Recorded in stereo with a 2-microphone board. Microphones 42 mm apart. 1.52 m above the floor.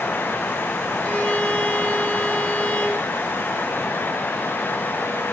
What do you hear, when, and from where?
1.0 s a violin: 35° left (ahead or behind), 1.1 m